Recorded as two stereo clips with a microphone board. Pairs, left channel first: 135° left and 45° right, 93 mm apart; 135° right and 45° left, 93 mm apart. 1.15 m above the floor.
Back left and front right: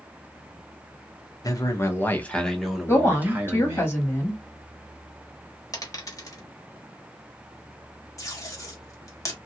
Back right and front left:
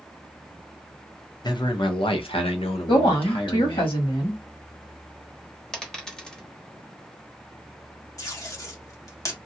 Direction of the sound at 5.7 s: 145° left.